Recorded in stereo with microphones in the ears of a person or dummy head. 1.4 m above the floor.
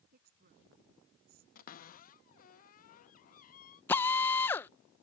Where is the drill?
10° left (ahead or behind).